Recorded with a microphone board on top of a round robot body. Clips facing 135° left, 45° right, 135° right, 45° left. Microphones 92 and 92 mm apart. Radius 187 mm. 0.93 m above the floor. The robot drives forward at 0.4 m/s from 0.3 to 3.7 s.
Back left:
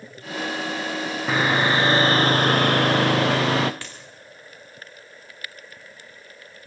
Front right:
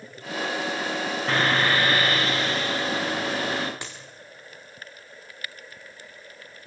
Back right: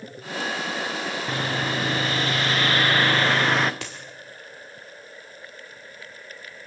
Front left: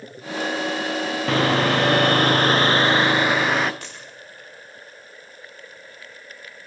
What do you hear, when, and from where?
1.3 s sawing: 50° left, 0.8 m; by 3.7 s 135° left, 0.8 m
3.8 s a dropped coin: 120° right, 1.2 m